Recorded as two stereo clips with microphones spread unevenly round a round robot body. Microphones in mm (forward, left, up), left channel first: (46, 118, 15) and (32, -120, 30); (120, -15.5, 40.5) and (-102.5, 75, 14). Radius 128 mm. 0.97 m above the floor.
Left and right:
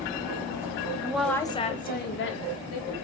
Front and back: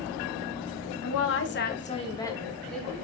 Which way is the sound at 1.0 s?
10° right.